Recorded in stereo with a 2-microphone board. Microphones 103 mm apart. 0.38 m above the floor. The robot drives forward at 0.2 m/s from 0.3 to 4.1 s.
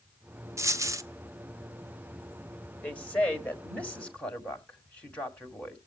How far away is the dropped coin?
About 0.8 m.